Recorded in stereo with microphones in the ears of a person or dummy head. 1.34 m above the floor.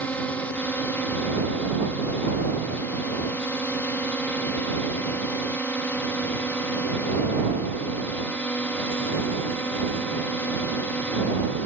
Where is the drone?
Centre (ahead or behind).